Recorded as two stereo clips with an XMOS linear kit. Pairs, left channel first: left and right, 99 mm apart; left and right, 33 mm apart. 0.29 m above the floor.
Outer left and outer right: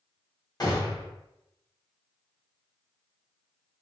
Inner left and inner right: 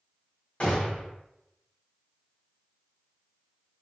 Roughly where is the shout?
I don't hear a shout.